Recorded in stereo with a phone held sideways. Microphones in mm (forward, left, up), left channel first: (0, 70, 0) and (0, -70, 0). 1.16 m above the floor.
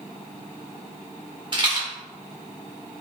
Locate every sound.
1.5 s a rattle: 35° right (ahead or behind), 1.0 m